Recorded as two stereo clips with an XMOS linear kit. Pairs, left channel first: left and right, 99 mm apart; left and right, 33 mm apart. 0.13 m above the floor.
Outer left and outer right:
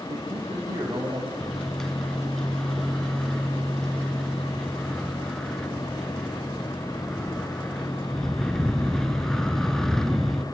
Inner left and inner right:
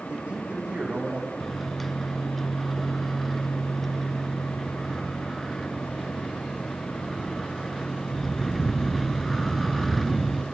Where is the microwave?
5° left (ahead or behind), 1.0 m.